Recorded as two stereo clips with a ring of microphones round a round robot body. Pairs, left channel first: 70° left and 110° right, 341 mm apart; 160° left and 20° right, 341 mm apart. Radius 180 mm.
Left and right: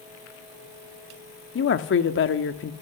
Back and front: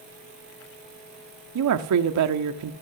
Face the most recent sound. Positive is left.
turn(degrees=15)